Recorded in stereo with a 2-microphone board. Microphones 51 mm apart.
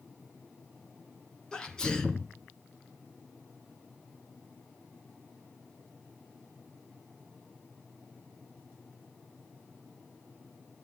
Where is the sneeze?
15° left (ahead or behind), 1.7 m.